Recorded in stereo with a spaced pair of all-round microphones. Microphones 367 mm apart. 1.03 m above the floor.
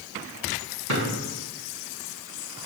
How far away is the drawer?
About 4.5 m.